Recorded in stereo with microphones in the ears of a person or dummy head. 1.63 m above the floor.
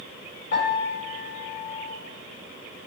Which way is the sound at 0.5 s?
80° left.